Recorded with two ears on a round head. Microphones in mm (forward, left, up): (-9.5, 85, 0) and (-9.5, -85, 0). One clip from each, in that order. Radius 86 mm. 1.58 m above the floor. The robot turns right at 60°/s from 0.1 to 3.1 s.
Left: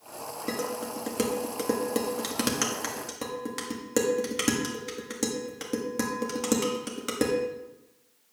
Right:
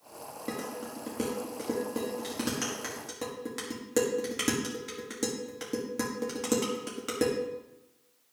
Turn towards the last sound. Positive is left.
turn(degrees=10)  # may be behind; listen again after turning